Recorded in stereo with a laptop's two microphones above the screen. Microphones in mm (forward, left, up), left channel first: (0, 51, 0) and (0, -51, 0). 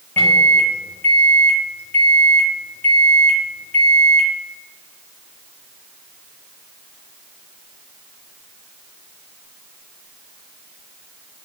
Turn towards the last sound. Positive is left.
turn(degrees=15)  # may be behind; listen again after turning